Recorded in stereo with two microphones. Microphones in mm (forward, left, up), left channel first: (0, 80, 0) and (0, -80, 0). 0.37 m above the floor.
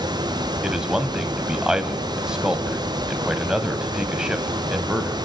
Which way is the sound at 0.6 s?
5° right (ahead or behind).